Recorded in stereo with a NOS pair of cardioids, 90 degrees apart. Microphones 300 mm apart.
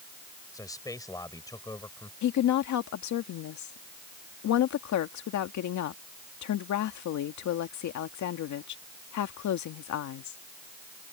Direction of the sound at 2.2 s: 70° left.